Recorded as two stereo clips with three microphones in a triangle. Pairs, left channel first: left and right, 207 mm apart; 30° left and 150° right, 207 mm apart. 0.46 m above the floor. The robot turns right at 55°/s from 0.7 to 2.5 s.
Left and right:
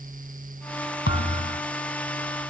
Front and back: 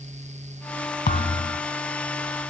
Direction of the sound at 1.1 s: 70° left.